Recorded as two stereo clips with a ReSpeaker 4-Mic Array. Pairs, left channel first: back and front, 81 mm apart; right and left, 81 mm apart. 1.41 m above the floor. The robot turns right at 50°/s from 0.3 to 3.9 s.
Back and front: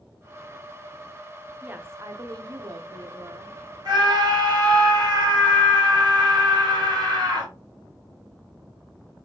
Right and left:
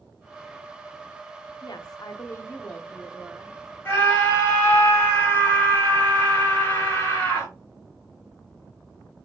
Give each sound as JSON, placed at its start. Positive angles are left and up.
{"t": 1.6, "sound": "a woman speaking", "azimuth_deg": -70, "distance_m": 0.6}
{"t": 3.9, "sound": "a scream", "azimuth_deg": -25, "distance_m": 1.8}